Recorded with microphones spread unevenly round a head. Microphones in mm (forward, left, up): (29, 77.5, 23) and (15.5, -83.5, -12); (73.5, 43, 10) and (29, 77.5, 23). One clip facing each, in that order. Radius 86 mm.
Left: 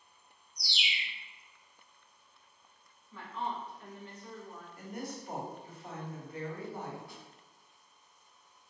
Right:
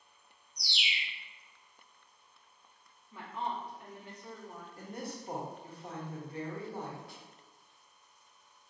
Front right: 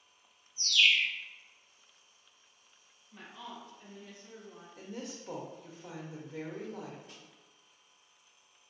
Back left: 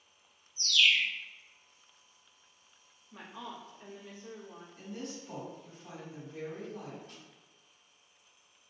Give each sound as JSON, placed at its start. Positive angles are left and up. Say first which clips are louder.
{"t": 0.6, "sound": "a bird", "louder": "even, even", "azimuth_deg": -60, "distance_m": 1.1}
{"t": 3.1, "sound": "a woman speaking", "louder": "even, back left 2 dB", "azimuth_deg": -175, "distance_m": 0.7}
{"t": 4.8, "sound": "a woman speaking", "louder": "left 1 dB, back left 1 dB", "azimuth_deg": -30, "distance_m": 1.1}
{"t": 7.1, "sound": "a snare drum", "louder": "left 1 dB, back left 1 dB", "azimuth_deg": -80, "distance_m": 1.4}